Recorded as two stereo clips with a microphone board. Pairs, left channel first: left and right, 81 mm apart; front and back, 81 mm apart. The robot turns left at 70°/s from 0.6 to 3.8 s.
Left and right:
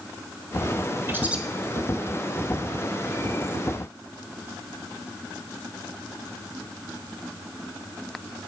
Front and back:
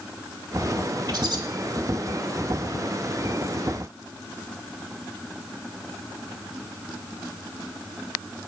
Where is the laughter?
I don't hear laughter.